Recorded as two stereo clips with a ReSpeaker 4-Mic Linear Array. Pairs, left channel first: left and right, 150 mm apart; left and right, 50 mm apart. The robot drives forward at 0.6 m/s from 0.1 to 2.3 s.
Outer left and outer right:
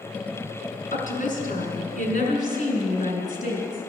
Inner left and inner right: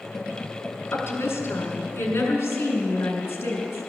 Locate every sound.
0.9 s a woman speaking: 60° left (ahead or behind), 3 m; by 3.9 s 50° left (ahead or behind), 3 m